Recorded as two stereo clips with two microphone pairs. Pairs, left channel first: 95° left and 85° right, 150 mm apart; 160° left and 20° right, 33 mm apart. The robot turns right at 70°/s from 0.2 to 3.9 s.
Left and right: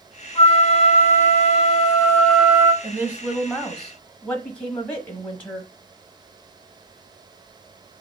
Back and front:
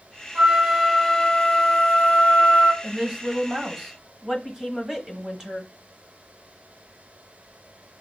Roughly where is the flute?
Ahead left.